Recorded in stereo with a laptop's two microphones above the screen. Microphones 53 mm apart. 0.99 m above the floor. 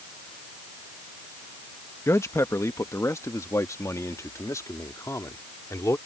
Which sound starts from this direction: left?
A man speaking, at 2.1 s.